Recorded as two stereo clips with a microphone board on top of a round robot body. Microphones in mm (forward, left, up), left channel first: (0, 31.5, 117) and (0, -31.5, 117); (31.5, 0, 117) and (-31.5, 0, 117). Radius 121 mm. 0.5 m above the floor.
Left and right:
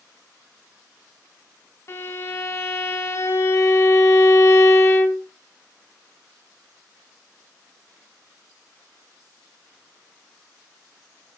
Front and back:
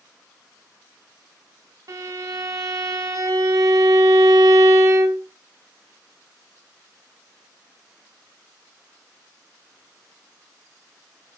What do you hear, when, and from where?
1.9 s a violin: 140° left, 2.5 m